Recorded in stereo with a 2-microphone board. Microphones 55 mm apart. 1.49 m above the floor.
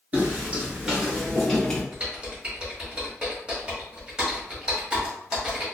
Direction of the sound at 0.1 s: 30° right (ahead or behind).